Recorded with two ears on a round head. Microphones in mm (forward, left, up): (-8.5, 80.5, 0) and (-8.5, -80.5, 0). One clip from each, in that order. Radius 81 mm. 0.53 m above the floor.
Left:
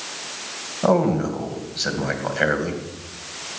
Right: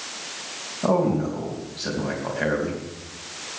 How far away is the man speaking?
About 3 m.